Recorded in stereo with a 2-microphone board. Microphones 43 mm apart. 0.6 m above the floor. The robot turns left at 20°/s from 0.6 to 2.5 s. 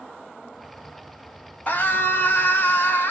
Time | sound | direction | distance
1.7 | a scream | 45° left (ahead or behind) | 1.1 m